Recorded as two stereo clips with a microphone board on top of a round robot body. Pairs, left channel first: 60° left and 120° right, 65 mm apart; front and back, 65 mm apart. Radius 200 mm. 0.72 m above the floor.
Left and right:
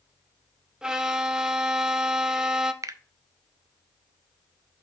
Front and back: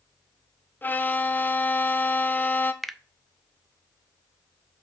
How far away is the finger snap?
About 0.6 m.